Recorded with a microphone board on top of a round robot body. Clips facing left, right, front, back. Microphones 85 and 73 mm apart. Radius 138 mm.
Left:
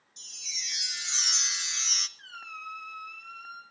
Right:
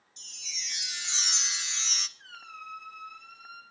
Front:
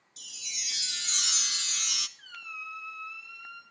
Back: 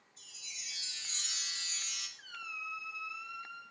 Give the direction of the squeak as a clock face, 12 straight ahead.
9 o'clock.